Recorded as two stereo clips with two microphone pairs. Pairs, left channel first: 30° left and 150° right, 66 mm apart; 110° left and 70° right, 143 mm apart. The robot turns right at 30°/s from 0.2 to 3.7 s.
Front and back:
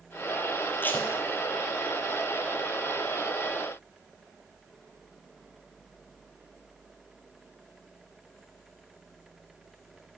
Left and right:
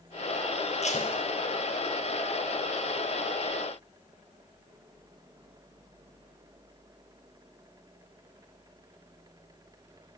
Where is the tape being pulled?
85° left, 1.4 m; by 1.1 s 95° left, 1.4 m.